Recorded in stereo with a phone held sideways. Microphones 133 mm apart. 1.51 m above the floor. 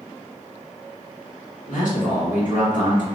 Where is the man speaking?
80° left, 1.8 m.